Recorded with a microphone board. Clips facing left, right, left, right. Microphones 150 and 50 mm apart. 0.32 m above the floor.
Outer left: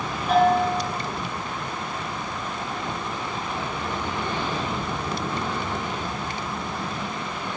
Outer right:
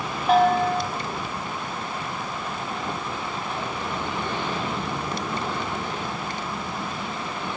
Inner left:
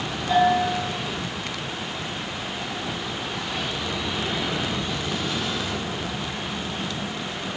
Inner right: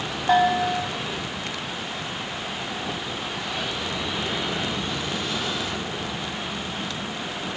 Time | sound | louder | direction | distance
0.3 | a bell | even, even | 60° right (ahead or behind) | 0.8 m